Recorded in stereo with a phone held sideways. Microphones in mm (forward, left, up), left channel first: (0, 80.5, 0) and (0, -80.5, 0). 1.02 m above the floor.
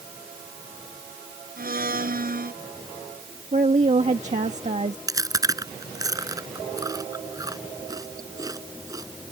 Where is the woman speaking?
50° right (ahead or behind).